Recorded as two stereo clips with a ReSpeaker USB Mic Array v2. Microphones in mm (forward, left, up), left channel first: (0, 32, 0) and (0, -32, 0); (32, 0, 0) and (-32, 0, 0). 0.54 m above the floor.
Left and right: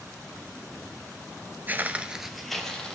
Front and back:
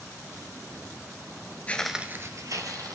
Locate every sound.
1.7 s footsteps: 50° right, 0.6 m; by 3.0 s 170° left, 1.3 m